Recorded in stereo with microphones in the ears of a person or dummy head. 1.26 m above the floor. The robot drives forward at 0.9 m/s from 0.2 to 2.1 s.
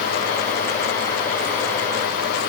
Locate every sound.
Only background noise.